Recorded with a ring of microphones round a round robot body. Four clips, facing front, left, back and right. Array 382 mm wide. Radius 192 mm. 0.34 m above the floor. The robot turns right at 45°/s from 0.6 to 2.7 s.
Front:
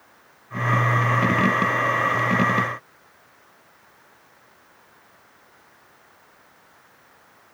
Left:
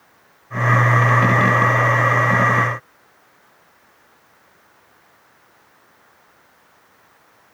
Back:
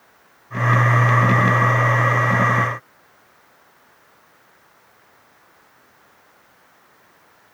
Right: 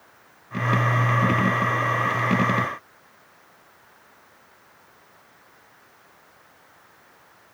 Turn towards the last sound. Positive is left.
No sound to turn to.